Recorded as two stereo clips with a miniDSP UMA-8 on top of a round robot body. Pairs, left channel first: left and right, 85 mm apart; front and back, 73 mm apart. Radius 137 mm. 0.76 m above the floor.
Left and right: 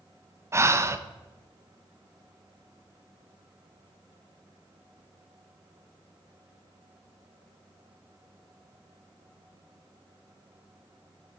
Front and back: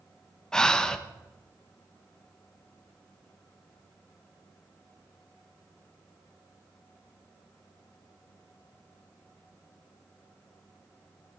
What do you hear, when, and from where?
0.5 s breathing: 75° right, 1.1 m